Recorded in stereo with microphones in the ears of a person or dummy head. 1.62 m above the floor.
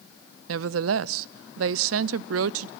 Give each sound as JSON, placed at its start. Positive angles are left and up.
{"t": 0.5, "sound": "a woman speaking", "side_deg": -90, "distance_m": 0.6}